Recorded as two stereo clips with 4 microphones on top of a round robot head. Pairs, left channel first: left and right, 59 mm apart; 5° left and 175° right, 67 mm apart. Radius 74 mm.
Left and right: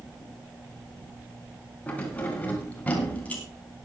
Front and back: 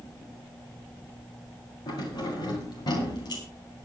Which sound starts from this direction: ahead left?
Keys jangling, at 1.9 s.